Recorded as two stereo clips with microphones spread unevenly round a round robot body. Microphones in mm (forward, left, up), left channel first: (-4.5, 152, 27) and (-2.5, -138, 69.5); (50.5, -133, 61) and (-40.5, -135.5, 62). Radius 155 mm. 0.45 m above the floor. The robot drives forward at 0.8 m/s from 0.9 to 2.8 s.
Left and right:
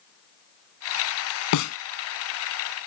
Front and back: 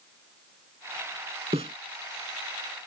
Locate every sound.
1.5 s a snare drum: 120° left; by 1.8 s 135° left